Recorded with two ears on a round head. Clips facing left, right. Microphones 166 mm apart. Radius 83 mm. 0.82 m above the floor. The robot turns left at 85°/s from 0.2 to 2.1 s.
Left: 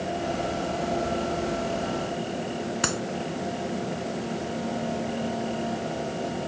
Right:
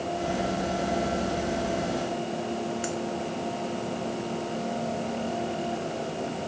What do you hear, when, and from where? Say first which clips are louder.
2.8 s a clap: left 1 dB; 80° left